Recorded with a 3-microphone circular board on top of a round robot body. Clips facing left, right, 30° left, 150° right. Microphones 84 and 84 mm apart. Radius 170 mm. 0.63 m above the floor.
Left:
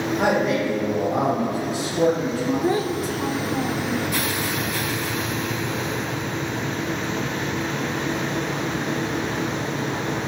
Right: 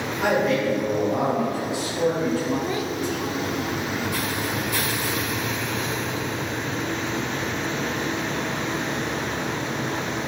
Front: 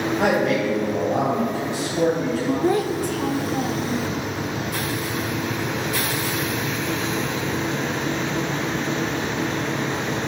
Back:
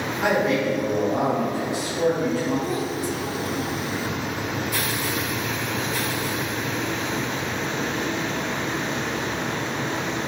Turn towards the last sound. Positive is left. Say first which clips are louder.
# left 4 dB, front 5 dB
turn(degrees=45)